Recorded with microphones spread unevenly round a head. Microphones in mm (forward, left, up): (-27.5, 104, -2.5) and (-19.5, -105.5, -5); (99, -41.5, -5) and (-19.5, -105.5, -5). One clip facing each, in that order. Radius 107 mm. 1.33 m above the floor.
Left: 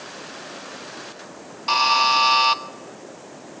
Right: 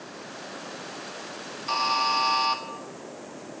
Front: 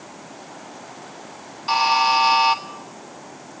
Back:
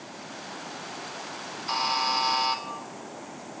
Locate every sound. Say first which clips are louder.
1.7 s a buzzer: left 6 dB, front 10 dB; 75° left, 1.2 m